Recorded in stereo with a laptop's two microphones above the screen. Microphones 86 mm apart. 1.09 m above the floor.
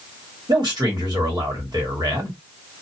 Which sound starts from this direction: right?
A man speaking, at 0.5 s.